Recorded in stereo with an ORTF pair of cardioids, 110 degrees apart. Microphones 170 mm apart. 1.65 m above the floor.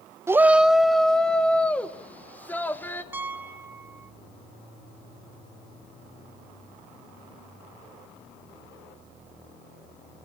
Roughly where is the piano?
Ahead.